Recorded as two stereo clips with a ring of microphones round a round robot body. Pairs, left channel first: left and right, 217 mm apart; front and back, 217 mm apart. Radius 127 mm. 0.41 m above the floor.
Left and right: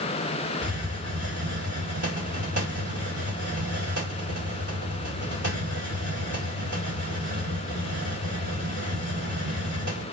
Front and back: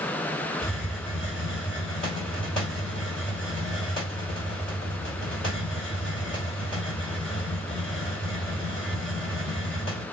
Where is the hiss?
85° right, 2.0 m.